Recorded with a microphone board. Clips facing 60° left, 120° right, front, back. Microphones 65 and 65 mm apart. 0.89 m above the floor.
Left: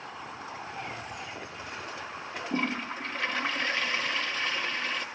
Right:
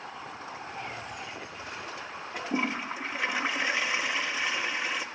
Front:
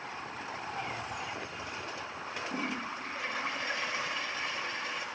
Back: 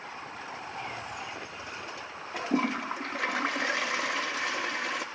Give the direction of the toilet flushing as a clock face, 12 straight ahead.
7 o'clock.